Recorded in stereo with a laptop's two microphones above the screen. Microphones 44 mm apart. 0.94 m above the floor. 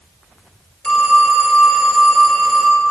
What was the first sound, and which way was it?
A phone ringing, 15° left (ahead or behind).